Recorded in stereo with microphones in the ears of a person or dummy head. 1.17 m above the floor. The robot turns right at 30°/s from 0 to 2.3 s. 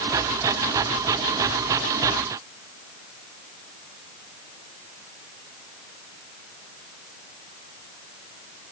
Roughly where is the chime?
I don't hear a chime.